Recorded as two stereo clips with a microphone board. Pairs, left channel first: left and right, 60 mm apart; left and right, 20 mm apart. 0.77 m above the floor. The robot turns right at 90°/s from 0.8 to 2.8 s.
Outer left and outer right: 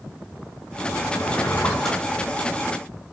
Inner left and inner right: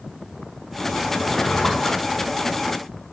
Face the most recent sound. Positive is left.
turn(degrees=-100)